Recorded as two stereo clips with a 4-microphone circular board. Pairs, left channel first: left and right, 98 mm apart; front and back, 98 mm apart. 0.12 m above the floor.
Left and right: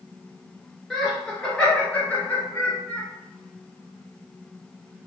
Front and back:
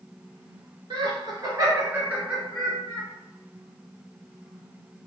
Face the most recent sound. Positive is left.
turn(degrees=55)